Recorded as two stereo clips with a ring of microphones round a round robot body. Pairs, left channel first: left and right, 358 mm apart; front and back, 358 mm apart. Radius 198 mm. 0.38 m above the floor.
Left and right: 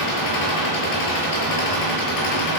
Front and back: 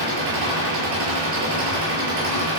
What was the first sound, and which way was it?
An engine running, 120° left.